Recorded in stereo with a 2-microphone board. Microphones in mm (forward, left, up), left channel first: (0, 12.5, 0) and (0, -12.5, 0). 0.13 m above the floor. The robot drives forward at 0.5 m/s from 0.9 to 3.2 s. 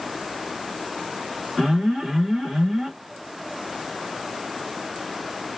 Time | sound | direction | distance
1.6 | an alarm | 25° right (ahead or behind) | 2 m